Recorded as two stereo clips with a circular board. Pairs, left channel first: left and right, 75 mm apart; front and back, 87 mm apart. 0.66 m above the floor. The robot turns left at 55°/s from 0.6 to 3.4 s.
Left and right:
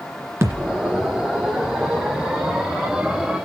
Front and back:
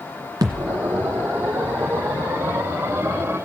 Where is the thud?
135° right, 1.9 m; by 0.8 s 150° right, 1.9 m.